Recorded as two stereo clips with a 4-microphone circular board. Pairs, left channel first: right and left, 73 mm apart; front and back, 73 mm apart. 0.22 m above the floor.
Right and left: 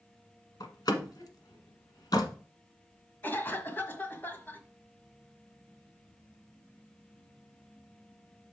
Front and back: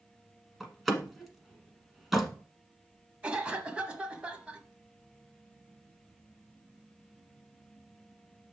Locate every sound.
0.6 s a door slam: 90° right, 1.3 m
3.2 s a cough: 120° right, 1.2 m